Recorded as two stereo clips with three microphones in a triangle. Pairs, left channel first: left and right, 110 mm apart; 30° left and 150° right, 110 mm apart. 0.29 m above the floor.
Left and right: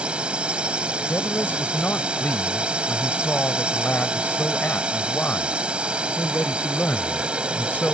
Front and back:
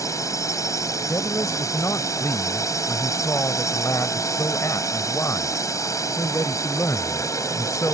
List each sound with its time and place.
0.0 s a drone: 15° right
1.1 s a man speaking: 40° left